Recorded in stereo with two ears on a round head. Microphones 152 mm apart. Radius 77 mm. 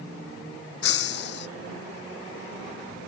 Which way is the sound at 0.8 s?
70° left (ahead or behind).